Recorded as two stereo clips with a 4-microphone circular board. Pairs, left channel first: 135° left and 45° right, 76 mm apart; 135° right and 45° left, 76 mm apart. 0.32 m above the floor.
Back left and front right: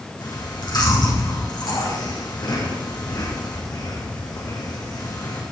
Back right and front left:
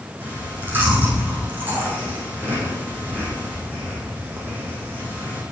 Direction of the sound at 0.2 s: 110° left.